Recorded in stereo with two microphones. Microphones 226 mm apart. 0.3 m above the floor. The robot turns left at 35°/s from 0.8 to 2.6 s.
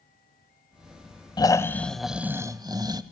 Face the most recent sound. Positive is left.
turn(degrees=-20)